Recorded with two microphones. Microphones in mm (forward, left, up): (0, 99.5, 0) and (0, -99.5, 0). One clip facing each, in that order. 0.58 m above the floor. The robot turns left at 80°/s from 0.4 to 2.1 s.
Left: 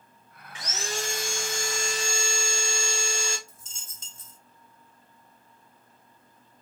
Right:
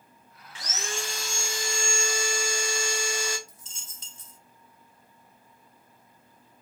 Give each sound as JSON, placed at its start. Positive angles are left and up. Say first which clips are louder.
{"t": 0.6, "sound": "sawing", "louder": "left 2 dB", "azimuth_deg": 160, "distance_m": 0.8}
{"t": 3.5, "sound": "a dropped coin", "louder": "even", "side_deg": 45, "distance_m": 1.2}